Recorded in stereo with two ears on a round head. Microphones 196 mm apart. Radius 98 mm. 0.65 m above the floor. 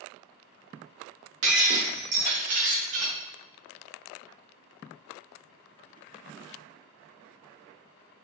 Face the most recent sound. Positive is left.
turn(degrees=-75)  # may be behind; listen again after turning